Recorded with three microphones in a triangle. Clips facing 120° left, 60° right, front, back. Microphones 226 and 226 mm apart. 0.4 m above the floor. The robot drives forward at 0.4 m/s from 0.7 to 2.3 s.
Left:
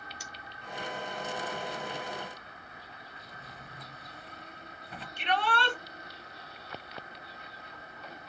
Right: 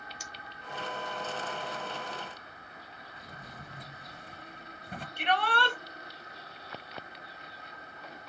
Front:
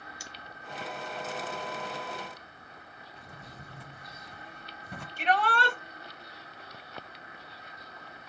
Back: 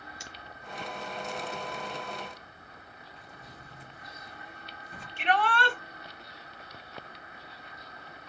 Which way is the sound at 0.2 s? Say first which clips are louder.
Even, back 1 dB; 115° left.